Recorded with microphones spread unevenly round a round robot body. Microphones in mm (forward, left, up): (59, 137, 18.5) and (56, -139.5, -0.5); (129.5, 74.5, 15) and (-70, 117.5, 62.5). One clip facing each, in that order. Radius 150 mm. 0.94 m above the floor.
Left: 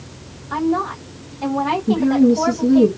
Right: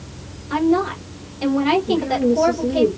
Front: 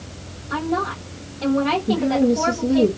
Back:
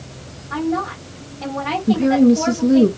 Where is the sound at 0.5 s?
95° right, 2.5 m.